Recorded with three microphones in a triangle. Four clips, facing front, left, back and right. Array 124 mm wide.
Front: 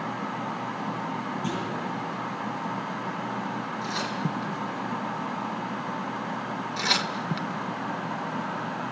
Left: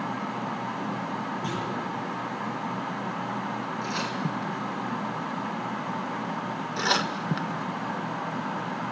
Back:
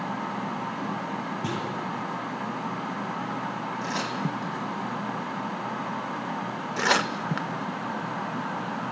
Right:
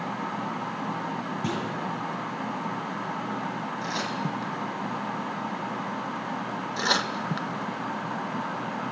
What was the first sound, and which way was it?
A clunk, 120° right.